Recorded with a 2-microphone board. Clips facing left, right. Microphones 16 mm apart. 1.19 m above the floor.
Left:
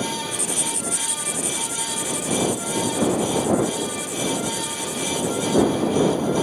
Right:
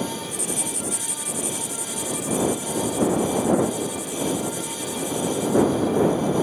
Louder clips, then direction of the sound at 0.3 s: Left 2 dB; 20° left (ahead or behind).